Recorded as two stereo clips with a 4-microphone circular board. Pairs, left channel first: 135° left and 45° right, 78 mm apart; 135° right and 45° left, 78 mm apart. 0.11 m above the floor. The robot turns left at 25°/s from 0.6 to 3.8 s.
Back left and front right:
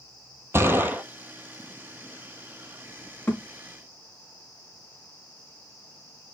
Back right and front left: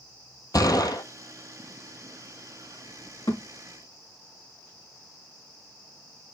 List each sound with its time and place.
0.5 s a gunshot: 100° right, 1.0 m; by 1.0 s 110° right, 1.0 m
3.3 s a thud: 150° right, 5 m; by 3.4 s 155° right, 5 m